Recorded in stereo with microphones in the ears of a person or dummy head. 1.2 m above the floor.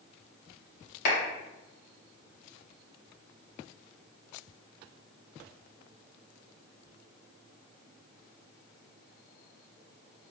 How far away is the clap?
About 1.6 m.